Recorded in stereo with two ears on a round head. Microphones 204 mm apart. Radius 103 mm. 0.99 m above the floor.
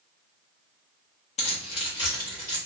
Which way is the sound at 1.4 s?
30° left (ahead or behind).